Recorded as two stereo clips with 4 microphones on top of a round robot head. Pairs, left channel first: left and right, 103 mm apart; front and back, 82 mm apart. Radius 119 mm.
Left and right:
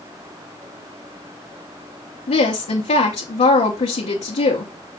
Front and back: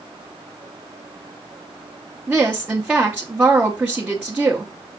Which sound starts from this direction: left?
A woman speaking, at 2.3 s.